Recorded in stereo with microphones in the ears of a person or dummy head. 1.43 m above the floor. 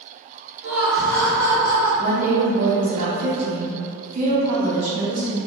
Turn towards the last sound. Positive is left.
turn(degrees=-35)  # may be behind; listen again after turning